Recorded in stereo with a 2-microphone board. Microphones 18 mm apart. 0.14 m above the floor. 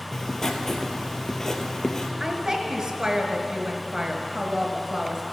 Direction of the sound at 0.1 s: 25° left (ahead or behind).